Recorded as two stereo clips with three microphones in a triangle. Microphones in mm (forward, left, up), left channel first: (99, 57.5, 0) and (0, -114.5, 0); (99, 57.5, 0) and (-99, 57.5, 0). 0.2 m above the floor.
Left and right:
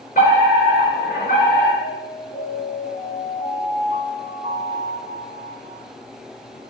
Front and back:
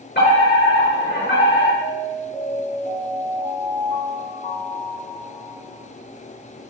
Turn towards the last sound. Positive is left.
turn(degrees=60)